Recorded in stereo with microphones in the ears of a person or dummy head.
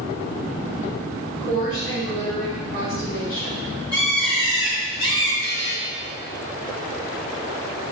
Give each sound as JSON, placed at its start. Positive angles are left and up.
{"t": 1.4, "sound": "a woman speaking", "side_deg": 25, "distance_m": 3.0}
{"t": 3.9, "sound": "a bird", "side_deg": -15, "distance_m": 2.5}
{"t": 5.4, "sound": "a buzzer", "side_deg": -80, "distance_m": 2.5}